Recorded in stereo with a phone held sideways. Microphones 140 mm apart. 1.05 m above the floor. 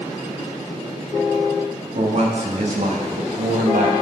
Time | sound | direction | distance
1.9 | a man speaking | 50° right (ahead or behind) | 2 m